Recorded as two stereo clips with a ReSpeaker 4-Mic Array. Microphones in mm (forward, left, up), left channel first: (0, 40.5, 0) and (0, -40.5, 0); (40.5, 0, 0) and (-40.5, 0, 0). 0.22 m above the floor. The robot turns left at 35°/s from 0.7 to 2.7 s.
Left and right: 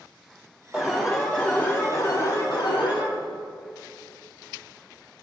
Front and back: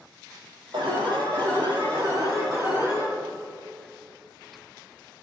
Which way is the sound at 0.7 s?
170° right.